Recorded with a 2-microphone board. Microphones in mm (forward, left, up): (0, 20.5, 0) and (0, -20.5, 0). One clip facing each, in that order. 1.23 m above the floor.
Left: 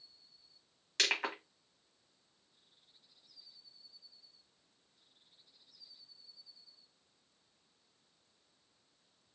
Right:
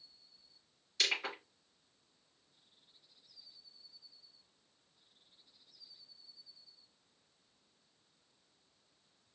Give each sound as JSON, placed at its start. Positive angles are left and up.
{"t": 1.0, "sound": "crushing", "side_deg": 80, "distance_m": 1.8}